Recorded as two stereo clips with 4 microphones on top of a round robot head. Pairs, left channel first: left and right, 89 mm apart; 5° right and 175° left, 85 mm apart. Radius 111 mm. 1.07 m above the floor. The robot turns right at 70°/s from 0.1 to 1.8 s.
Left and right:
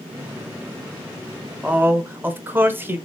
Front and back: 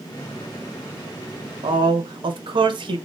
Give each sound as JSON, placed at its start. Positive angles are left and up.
{"t": 1.6, "sound": "a man speaking", "azimuth_deg": -170, "distance_m": 0.9}